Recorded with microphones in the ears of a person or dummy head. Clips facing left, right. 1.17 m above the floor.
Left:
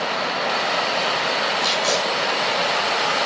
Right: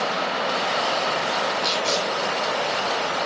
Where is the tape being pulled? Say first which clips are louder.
Left 2 dB; 40° left (ahead or behind), 6 m.